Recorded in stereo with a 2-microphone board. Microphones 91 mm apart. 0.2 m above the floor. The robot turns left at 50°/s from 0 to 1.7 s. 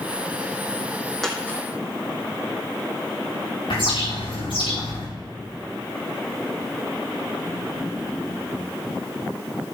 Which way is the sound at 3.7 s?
75° left (ahead or behind).